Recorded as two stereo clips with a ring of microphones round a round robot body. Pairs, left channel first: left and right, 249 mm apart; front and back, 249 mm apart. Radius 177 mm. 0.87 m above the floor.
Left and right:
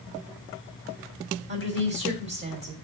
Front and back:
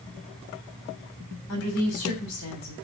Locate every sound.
1.5 s a woman speaking: 50° right, 3 m